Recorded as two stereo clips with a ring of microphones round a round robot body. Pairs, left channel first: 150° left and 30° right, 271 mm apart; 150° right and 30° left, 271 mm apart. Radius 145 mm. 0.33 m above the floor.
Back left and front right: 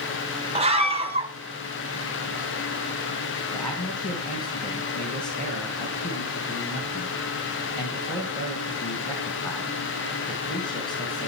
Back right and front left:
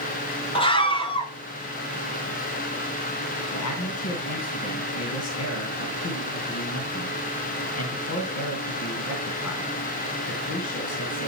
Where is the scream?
90° right, 1.3 m.